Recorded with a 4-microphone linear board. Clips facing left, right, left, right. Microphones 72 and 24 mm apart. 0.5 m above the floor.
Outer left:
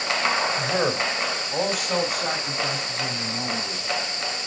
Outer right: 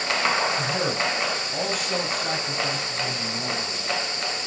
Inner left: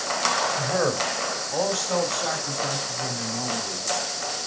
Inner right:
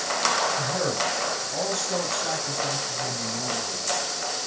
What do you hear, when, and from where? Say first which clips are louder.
0.6 s a man speaking: outer left 2 dB, inner left 2 dB; 45° left (ahead or behind), 3 m; by 3.8 s 70° left (ahead or behind), 6.5 m